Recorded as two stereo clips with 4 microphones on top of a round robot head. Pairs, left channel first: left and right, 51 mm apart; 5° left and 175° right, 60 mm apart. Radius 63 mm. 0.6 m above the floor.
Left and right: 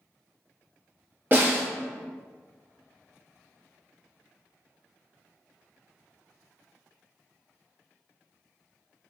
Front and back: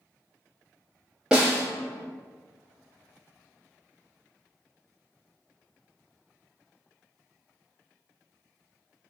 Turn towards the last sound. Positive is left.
turn(degrees=-100)